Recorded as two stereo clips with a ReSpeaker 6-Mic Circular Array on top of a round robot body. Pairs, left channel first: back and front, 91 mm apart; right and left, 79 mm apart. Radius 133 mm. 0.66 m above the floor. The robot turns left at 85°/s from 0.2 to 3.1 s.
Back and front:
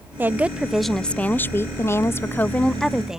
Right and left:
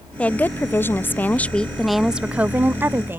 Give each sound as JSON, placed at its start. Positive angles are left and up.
{"t": 0.2, "sound": "a woman speaking", "azimuth_deg": -35}